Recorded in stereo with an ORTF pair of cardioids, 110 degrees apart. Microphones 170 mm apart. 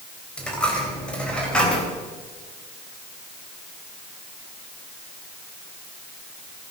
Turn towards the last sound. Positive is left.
turn(degrees=5)